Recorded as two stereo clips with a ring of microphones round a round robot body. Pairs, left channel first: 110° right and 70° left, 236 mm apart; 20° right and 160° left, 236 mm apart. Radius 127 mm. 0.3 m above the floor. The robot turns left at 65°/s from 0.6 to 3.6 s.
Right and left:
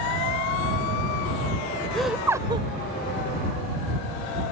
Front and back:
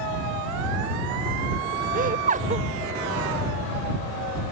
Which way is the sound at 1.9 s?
165° left.